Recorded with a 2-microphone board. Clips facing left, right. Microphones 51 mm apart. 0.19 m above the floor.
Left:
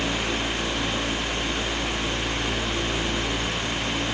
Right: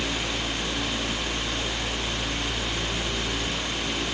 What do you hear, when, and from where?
Only background noise.